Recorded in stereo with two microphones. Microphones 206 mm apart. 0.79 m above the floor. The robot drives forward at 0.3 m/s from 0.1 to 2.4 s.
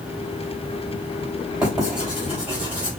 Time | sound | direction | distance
1.6 | writing | 5° right (ahead or behind) | 3 m